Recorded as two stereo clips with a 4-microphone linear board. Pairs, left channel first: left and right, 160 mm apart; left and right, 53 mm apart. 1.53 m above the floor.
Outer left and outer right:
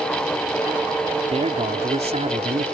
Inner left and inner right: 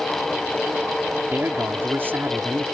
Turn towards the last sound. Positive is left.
turn(degrees=-40)  # may be behind; listen again after turning